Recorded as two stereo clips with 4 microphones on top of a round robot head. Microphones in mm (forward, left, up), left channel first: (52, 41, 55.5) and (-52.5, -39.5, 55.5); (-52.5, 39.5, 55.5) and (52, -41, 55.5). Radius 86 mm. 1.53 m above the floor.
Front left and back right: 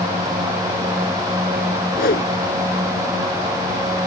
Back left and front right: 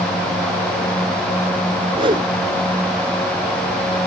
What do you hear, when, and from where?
1.9 s a whoosh: 20° left